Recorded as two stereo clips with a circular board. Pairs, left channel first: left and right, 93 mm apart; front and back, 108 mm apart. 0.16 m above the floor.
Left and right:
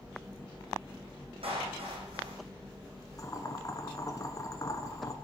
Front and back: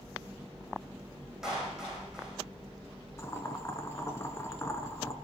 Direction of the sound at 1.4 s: 95° right.